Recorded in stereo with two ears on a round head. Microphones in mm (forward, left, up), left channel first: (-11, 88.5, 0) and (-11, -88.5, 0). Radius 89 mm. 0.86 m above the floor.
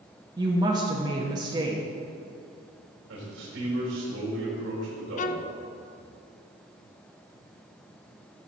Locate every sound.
0.4 s a woman speaking: 20° right (ahead or behind), 0.9 m
3.1 s a man speaking: 65° right (ahead or behind), 3.5 m
5.2 s a violin: 40° left (ahead or behind), 0.5 m